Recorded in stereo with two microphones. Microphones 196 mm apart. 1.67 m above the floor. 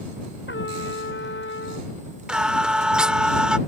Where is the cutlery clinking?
I don't hear cutlery clinking.